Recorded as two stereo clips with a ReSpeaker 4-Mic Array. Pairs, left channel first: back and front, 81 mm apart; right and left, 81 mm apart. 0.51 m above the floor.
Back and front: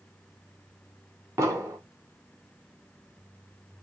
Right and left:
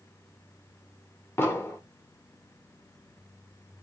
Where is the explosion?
40° right, 1.4 m.